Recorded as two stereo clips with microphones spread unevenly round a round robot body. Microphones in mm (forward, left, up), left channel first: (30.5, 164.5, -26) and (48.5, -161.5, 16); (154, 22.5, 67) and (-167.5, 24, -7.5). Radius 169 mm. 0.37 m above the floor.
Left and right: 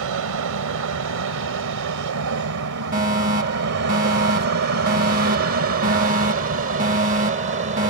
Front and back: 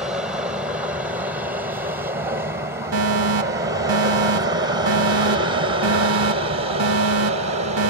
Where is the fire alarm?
155° right.